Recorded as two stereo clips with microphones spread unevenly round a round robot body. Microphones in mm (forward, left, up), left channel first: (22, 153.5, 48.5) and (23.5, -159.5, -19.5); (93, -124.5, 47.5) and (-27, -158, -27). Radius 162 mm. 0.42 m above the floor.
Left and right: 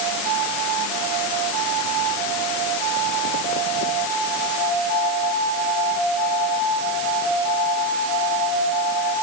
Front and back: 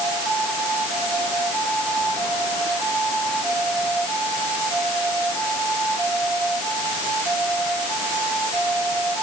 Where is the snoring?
No snoring in this recording.